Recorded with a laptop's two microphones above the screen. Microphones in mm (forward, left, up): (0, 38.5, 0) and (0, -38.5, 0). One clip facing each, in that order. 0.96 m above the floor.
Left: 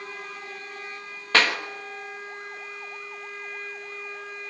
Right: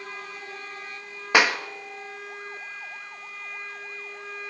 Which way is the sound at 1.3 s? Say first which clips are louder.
Right 2 dB; 15° right (ahead or behind).